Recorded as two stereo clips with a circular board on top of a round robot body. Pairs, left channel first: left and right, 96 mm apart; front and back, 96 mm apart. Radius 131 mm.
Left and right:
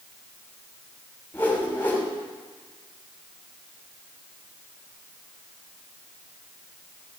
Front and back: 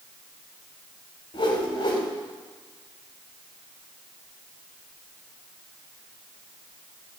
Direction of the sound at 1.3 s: 25° left.